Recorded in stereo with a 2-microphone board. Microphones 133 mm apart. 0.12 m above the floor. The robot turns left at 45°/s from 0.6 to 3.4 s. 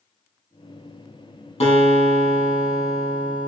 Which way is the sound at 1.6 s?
125° left.